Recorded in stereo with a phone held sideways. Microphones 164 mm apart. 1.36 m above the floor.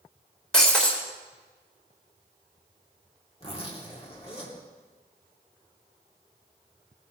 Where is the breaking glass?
5° left (ahead or behind), 2 m.